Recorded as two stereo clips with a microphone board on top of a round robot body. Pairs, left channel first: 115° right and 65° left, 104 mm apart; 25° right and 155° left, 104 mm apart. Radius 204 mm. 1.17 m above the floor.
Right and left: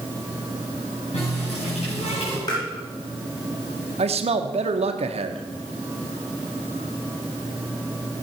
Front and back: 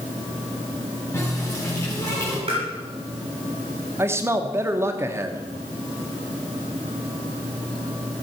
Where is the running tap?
85° right, 5.5 m.